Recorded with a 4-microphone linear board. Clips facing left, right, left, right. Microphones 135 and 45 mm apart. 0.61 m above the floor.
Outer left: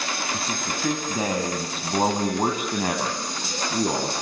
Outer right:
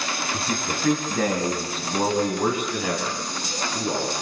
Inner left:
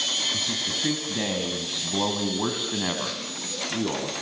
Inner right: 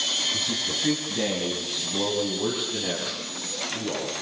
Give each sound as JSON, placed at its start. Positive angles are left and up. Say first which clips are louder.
{"t": 0.3, "sound": "a man speaking", "louder": "outer right 2 dB, even", "side_deg": 0, "distance_m": 4.0}